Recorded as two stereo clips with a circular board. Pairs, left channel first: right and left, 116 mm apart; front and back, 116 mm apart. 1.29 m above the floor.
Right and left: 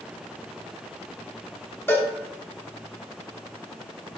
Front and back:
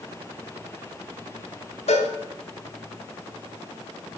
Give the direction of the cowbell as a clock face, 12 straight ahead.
1 o'clock.